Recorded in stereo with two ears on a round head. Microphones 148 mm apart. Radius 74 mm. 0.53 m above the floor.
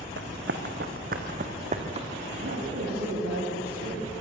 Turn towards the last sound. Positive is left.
turn(degrees=-70)  # may be behind; listen again after turning